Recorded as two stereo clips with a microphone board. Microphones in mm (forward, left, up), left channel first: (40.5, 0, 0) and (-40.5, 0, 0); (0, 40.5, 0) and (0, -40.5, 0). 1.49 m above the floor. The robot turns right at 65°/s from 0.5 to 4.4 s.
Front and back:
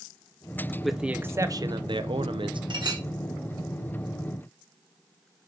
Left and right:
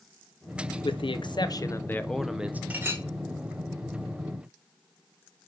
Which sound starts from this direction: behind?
A clink, at 2.7 s.